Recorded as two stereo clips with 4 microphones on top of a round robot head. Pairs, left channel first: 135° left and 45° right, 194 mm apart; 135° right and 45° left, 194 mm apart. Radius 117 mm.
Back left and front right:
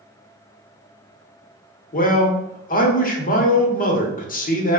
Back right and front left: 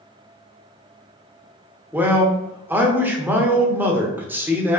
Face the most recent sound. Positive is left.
turn(degrees=120)